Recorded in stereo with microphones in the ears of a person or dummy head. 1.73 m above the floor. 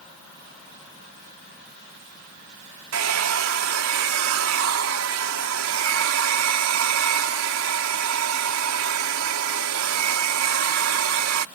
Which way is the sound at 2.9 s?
80° right.